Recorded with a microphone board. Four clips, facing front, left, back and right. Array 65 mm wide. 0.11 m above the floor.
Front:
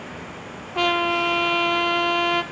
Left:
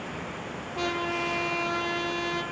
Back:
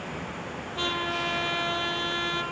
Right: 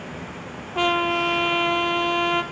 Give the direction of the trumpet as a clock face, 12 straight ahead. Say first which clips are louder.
Right 8 dB, front 9 dB; 2 o'clock.